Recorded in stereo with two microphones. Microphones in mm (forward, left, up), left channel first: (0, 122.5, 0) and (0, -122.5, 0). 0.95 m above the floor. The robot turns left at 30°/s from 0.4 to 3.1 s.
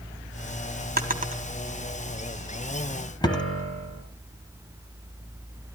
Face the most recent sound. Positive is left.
turn(degrees=70)  # may be behind; listen again after turning